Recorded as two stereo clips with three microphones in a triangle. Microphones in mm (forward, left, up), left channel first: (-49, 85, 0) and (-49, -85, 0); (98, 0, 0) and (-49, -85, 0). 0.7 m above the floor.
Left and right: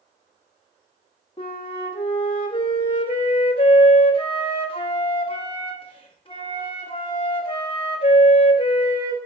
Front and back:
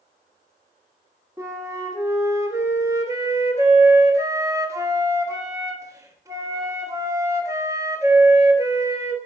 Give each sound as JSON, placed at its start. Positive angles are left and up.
{"t": 1.4, "sound": "a flute", "azimuth_deg": 140, "distance_m": 1.3}